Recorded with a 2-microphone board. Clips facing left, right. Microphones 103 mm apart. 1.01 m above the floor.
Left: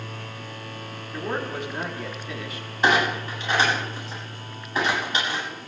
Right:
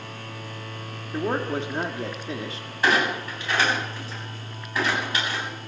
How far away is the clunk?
About 8.5 m.